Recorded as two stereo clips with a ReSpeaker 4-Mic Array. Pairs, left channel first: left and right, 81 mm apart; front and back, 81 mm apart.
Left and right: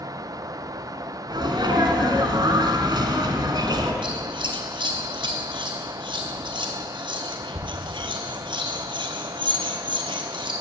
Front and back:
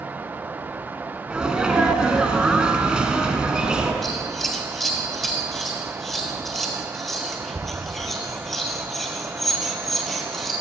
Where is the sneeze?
100° right, 2 m.